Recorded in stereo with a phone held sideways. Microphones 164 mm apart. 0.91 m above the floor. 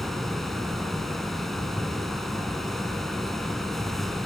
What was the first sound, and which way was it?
A fan, centre (ahead or behind).